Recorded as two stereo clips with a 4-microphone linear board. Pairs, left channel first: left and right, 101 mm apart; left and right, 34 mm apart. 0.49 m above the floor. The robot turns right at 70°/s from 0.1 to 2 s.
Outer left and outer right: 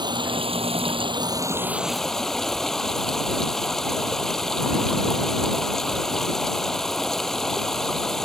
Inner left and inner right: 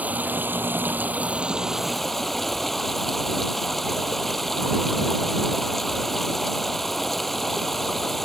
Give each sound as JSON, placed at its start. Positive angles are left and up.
{"t": 0.0, "sound": "running water", "azimuth_deg": -130}